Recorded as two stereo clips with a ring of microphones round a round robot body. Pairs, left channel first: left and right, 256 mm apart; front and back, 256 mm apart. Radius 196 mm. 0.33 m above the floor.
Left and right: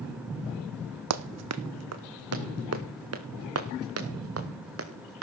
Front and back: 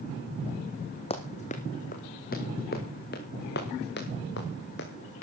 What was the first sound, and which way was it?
Running footsteps, 75° right.